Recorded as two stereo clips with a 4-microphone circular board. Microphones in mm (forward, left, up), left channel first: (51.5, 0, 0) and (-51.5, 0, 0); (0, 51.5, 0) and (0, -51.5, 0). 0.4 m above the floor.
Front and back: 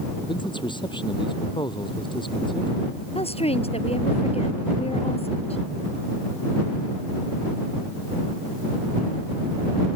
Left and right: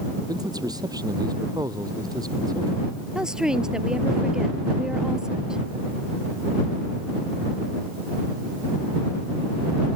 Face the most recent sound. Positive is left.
turn(degrees=-5)